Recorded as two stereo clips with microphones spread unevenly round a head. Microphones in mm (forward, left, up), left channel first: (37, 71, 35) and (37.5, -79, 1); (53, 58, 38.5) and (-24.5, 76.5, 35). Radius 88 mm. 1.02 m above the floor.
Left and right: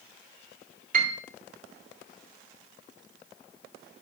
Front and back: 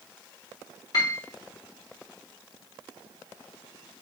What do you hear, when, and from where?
0.9 s a piano: 60° right, 0.8 m